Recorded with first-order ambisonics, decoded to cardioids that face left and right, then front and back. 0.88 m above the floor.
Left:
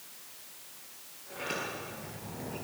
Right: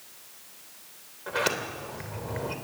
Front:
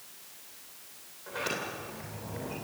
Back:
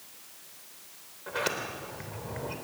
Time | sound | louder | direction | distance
1.3 | a sliding door | right 8 dB, back 2 dB | 110° right | 3 m